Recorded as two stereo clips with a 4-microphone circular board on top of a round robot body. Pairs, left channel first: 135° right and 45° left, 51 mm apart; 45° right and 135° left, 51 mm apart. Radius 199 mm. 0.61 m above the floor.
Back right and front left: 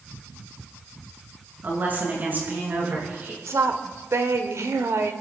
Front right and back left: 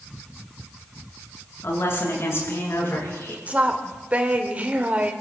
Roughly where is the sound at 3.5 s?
Left.